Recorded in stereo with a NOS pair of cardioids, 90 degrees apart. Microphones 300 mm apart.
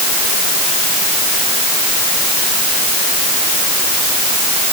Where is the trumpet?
No trumpet in this recording.